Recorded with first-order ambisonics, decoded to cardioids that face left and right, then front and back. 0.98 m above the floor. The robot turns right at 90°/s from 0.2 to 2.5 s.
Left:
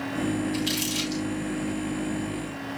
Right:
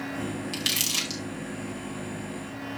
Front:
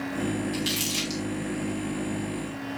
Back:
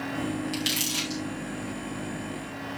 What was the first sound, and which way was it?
Crumpling, 120° right.